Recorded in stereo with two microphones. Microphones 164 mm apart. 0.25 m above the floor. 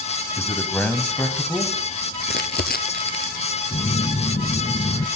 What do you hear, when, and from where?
0.4 s a man speaking: 15° left (ahead or behind), 1.5 m; by 1.8 s 5° left (ahead or behind), 2 m
2.2 s crumpling: 75° left (ahead or behind), 0.8 m
3.7 s a phone buzzing: 45° left (ahead or behind), 0.8 m